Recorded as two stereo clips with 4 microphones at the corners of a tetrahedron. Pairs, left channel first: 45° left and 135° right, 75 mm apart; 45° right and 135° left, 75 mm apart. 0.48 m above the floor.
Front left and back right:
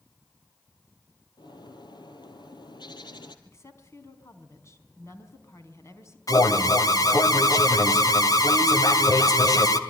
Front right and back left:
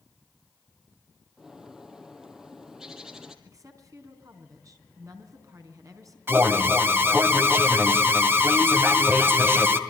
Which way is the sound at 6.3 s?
75° left.